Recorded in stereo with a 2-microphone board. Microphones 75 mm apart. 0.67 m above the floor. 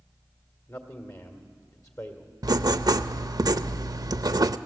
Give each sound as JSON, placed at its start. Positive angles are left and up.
{"t": 0.7, "sound": "a man speaking", "side_deg": 45, "distance_m": 1.8}
{"t": 2.4, "sound": "writing", "side_deg": -55, "distance_m": 0.6}